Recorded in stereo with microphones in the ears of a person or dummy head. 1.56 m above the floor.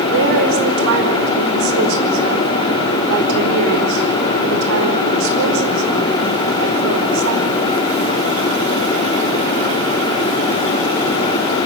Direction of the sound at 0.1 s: 65° right (ahead or behind).